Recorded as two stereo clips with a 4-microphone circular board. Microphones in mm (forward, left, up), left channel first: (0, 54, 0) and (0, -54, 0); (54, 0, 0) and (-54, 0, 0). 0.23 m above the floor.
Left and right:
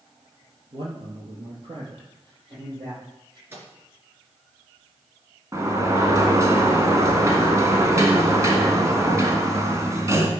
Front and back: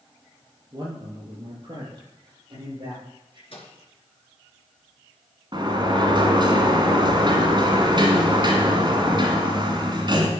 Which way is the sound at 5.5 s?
145° right.